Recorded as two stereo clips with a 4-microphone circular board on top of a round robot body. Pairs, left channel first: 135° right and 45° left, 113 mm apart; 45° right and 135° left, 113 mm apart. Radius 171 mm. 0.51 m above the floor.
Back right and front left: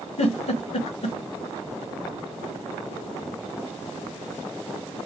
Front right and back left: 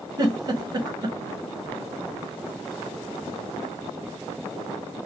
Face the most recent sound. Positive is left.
turn(degrees=-165)